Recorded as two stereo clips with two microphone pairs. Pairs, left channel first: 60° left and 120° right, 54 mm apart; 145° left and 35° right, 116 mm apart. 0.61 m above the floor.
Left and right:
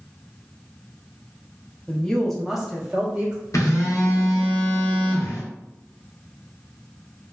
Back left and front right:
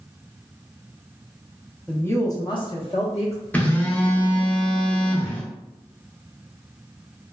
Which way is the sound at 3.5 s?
65° left.